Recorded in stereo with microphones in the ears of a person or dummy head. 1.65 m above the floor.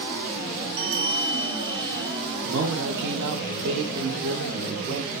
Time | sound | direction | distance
0.8 | a bell | 70° right (ahead or behind) | 0.9 m
2.4 | a man speaking | 55° right (ahead or behind) | 1.2 m